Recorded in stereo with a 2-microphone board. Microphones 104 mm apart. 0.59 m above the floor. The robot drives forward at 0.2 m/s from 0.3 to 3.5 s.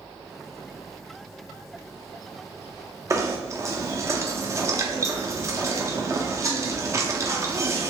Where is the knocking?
30° right (ahead or behind), 0.6 m.